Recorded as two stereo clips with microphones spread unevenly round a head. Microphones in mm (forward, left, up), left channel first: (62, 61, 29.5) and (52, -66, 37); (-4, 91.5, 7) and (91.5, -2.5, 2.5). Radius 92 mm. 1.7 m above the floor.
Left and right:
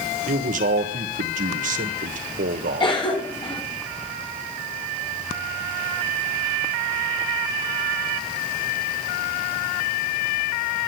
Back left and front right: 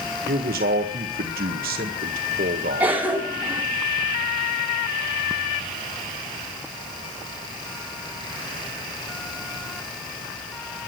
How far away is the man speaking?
About 1.6 m.